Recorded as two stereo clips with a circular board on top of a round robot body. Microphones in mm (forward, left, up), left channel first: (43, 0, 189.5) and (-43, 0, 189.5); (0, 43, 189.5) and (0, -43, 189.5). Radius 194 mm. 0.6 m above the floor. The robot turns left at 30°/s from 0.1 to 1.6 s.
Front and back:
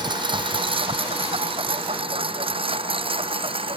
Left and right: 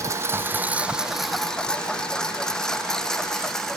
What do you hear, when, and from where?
0.0 s a lawn mower: 145° right; by 3.8 s 175° left